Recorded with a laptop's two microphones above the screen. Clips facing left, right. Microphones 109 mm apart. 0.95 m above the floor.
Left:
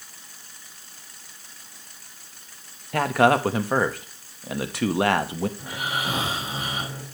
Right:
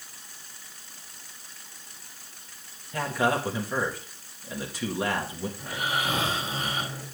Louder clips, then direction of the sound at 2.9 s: Left 7 dB; 70° left (ahead or behind).